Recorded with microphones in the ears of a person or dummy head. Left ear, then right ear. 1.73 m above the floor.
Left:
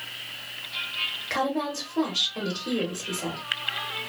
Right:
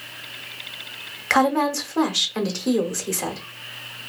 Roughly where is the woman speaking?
Right.